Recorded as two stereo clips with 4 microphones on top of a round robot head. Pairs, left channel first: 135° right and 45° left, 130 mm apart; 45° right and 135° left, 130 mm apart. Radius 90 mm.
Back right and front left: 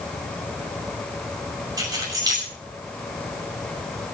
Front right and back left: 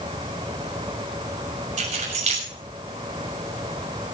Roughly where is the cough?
No cough in this recording.